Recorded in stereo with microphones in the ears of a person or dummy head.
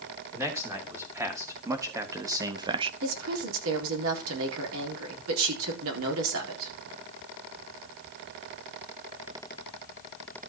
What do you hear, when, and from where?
0.3 s a man speaking: 10° right (ahead or behind), 3.5 m; by 2.9 s 30° right (ahead or behind), 0.6 m
3.0 s a woman speaking: 85° right, 4 m